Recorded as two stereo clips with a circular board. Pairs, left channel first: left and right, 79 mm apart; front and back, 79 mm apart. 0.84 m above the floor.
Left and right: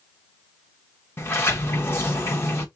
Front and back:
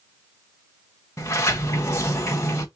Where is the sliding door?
40° left, 1.4 m.